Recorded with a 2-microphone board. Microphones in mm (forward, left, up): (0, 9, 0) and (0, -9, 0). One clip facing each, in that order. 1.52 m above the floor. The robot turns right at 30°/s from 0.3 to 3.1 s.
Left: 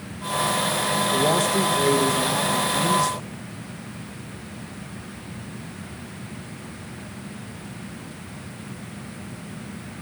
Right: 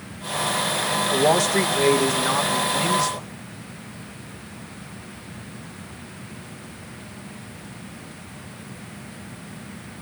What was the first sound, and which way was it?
A man speaking, 105° right.